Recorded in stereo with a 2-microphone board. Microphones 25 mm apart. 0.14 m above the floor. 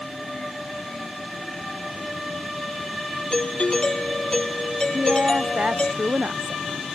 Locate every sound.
3.3 s a doorbell: 35° left (ahead or behind)
4.9 s a woman speaking: 70° right (ahead or behind)